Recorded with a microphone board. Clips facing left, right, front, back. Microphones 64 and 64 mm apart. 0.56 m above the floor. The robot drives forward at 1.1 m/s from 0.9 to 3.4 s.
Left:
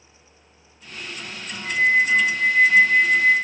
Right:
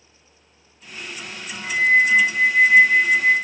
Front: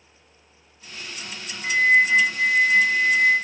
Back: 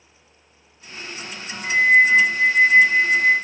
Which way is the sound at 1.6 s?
85° right.